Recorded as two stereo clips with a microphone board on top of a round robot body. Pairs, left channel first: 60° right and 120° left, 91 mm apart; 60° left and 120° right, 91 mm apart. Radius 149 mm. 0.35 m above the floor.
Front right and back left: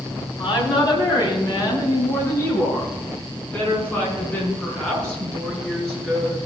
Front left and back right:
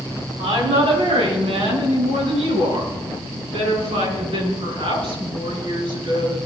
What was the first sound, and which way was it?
A woman speaking, 100° right.